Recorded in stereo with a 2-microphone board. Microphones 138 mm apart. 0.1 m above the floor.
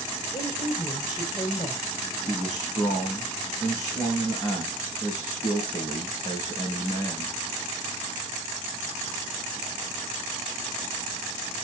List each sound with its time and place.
0.3 s a woman speaking: 30° left (ahead or behind), 6 m
2.3 s a man speaking: 30° left (ahead or behind), 5 m